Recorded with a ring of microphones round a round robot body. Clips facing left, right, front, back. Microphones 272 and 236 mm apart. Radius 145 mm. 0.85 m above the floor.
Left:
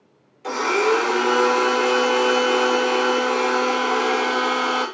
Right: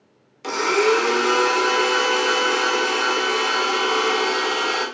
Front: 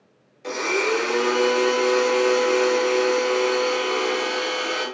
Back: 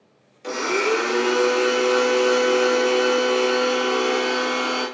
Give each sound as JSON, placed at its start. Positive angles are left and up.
{"t": 0.4, "sound": "a blender", "azimuth_deg": -100, "distance_m": 1.2}